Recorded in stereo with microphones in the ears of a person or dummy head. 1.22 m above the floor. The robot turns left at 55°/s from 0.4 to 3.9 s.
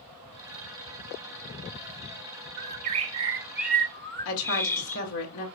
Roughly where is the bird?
Behind right.